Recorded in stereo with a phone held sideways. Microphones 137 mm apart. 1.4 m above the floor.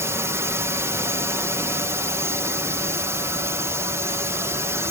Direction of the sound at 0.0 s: 20° right (ahead or behind).